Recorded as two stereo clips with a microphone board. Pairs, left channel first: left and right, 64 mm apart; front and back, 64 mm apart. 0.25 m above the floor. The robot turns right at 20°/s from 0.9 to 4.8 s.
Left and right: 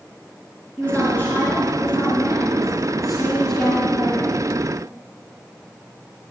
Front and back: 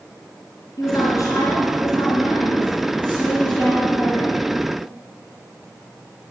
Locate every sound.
0.8 s a woman speaking: 25° left, 4 m; by 4.3 s 90° left, 4 m